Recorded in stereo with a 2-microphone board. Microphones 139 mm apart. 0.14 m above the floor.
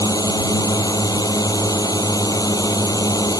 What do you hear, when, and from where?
0.0 s a drone: 25° left (ahead or behind)